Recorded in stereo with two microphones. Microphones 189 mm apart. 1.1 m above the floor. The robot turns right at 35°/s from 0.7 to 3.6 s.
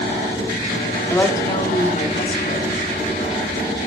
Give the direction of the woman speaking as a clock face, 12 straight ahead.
12 o'clock.